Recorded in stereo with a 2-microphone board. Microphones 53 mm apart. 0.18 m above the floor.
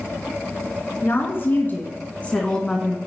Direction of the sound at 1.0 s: 50° left (ahead or behind).